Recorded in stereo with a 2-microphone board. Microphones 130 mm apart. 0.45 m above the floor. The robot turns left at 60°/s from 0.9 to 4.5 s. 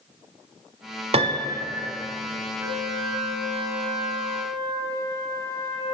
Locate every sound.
1.1 s a piano: 125° right, 0.7 m; by 1.6 s 160° right, 0.7 m
2.6 s a flute: 20° right, 3.5 m; by 5.9 s 130° right, 3.5 m